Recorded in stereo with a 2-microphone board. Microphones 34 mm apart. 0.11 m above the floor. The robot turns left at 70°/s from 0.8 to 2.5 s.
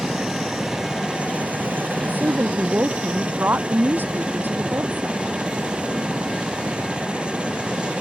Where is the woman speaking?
60° right; by 5.2 s 95° right.